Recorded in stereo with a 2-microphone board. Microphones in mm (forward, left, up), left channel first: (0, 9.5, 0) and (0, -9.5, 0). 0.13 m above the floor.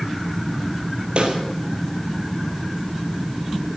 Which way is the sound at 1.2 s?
60° right (ahead or behind).